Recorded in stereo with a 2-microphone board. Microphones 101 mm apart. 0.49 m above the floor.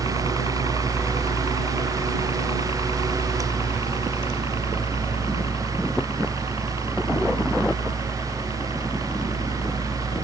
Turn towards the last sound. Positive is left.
turn(degrees=55)  # may be behind; listen again after turning